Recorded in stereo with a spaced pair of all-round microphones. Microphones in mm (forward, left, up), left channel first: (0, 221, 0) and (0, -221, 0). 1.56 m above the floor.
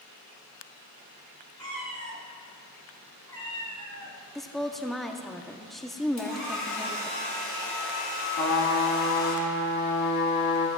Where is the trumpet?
50° left (ahead or behind), 1.7 m.